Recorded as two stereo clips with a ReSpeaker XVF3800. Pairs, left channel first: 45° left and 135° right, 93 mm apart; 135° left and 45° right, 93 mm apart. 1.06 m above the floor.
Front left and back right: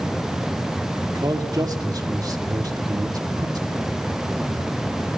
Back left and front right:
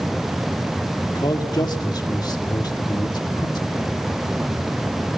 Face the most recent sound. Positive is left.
turn(degrees=175)